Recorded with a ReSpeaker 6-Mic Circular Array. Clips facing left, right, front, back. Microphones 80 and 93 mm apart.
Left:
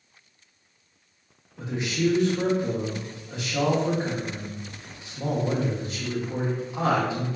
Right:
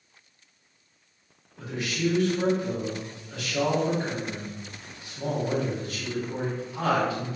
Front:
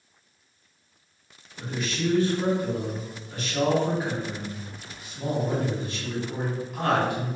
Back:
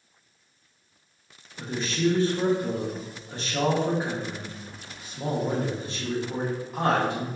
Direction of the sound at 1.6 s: 140° left.